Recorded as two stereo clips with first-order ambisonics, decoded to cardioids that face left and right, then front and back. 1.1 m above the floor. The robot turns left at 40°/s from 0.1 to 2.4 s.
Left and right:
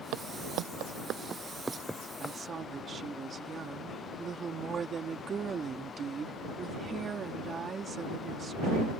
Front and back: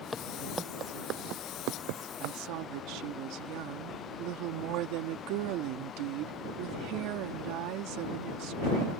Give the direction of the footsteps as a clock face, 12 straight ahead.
3 o'clock.